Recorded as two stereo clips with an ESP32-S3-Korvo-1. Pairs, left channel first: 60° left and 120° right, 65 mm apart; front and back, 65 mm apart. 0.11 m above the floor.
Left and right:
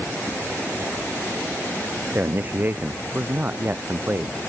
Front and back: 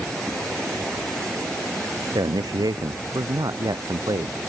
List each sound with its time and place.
2.1 s a man speaking: straight behind